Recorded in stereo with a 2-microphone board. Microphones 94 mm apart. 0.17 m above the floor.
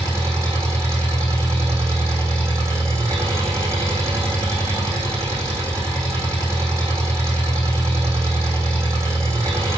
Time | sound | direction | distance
0.0 | an engine running | 35° right (ahead or behind) | 4 m